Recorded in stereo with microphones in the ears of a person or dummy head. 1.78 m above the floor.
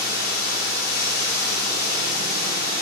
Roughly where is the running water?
Left.